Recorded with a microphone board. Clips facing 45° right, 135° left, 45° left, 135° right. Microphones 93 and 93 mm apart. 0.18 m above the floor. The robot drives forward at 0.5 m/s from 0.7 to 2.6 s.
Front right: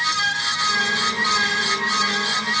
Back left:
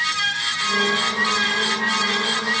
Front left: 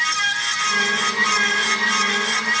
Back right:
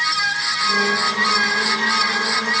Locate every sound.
Only background noise.